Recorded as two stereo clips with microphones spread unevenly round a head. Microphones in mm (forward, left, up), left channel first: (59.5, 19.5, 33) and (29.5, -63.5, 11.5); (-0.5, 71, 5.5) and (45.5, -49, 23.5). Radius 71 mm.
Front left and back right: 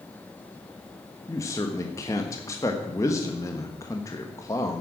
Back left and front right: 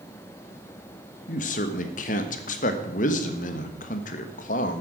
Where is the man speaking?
140° left, 1.4 m.